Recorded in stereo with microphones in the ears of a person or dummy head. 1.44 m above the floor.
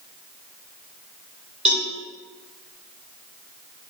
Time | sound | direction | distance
1.6 | a cowbell | 5° right (ahead or behind) | 1.5 m